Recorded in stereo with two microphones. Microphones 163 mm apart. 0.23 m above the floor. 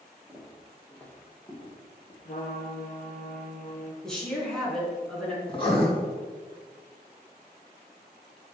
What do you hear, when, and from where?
0.3 s footsteps: 10° right (ahead or behind), 2.5 m; by 2.1 s 25° left (ahead or behind), 4.5 m
2.2 s a trumpet: 55° left (ahead or behind), 1.6 m
4.0 s a woman speaking: 5° left (ahead or behind), 3 m
5.5 s writing: 30° left (ahead or behind), 2 m